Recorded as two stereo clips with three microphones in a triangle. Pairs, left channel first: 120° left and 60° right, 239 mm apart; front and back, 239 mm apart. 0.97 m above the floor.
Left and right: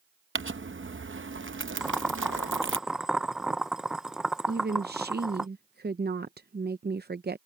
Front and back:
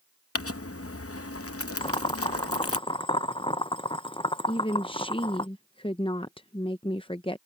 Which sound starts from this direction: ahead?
Crumpling, at 0.3 s.